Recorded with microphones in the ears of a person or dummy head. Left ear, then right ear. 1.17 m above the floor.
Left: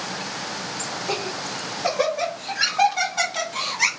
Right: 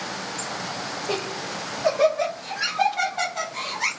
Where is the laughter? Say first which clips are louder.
Left 1 dB; centre (ahead or behind), 1.7 m; by 3.9 s 70° left (ahead or behind), 1.4 m.